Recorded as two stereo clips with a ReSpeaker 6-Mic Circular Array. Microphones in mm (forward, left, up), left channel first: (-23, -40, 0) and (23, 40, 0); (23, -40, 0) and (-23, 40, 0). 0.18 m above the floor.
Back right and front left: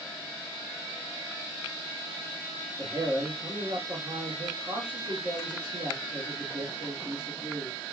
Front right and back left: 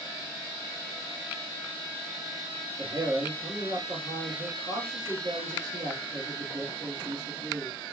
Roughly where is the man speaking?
Left.